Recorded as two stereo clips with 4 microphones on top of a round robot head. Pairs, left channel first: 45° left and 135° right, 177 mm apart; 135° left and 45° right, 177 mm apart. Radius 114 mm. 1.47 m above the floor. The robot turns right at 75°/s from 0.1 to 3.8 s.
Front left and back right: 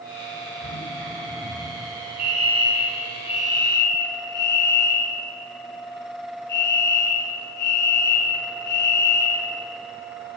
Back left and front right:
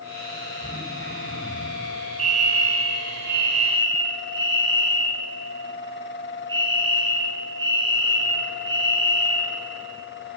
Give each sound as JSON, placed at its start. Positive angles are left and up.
{"t": 0.6, "sound": "throat clearing", "azimuth_deg": -125, "distance_m": 6.0}
{"t": 2.2, "sound": "a fire alarm", "azimuth_deg": -100, "distance_m": 4.0}